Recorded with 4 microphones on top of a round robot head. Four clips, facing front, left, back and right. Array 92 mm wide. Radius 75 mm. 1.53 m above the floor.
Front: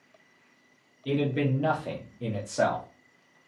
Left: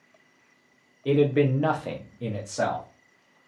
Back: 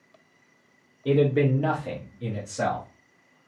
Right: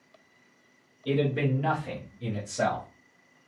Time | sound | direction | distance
1.1 | a man speaking | 135° left | 0.8 m